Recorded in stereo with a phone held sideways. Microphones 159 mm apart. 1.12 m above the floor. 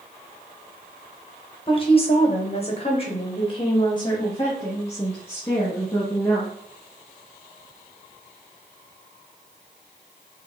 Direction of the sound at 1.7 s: 35° left (ahead or behind).